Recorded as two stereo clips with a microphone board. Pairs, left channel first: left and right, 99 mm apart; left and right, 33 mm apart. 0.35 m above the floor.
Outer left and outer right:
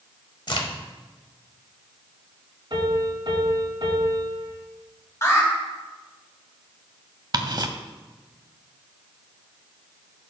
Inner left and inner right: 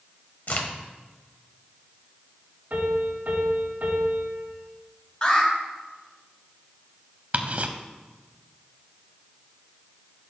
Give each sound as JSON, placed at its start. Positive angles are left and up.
{"t": 0.5, "sound": "a crack", "side_deg": 55, "distance_m": 1.1}
{"t": 2.7, "sound": "a piano", "side_deg": -55, "distance_m": 3.5}
{"t": 5.2, "sound": "an alarm", "side_deg": 35, "distance_m": 2.5}
{"t": 7.3, "sound": "ticking", "side_deg": -50, "distance_m": 0.7}